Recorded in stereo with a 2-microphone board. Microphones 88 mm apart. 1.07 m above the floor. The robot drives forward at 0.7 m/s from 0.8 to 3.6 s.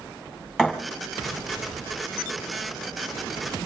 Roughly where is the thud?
Centre.